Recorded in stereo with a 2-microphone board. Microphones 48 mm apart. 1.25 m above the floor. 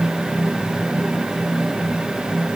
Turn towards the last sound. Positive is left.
No sound to turn to.